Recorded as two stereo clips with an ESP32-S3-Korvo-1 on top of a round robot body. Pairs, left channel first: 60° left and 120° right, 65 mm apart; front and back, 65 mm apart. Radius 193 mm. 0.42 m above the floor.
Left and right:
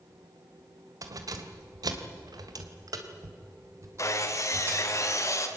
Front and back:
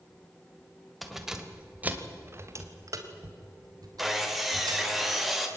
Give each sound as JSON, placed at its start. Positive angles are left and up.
{"t": 1.0, "sound": "keys jangling", "azimuth_deg": -90, "distance_m": 2.5}
{"t": 4.0, "sound": "sawing", "azimuth_deg": 90, "distance_m": 3.0}